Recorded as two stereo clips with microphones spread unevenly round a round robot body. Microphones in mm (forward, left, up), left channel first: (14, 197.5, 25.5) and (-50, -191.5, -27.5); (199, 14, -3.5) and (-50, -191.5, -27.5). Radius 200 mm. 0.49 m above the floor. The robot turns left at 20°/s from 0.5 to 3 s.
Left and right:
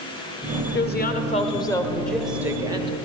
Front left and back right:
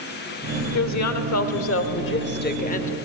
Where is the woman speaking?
15° left, 1.6 m; by 3.0 s 30° right, 1.6 m.